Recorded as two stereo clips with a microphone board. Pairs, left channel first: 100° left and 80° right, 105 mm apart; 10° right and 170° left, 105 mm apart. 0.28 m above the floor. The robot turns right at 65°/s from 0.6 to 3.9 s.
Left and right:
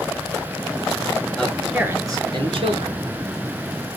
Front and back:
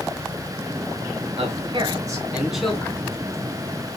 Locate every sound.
1.4 s a man speaking: straight behind, 3 m; by 3.0 s 70° right, 3 m